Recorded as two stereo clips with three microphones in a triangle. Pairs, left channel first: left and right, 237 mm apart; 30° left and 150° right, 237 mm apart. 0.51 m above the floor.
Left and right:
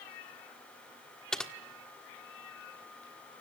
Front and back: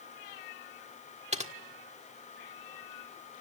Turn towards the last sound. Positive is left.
turn(degrees=175)